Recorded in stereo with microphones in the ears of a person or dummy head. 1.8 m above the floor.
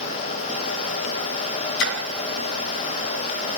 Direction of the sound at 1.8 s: 65° left (ahead or behind).